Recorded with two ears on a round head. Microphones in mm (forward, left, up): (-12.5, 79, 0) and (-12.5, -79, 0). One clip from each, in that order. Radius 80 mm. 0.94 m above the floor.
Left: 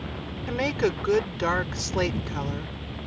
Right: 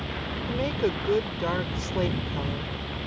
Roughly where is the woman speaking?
Left.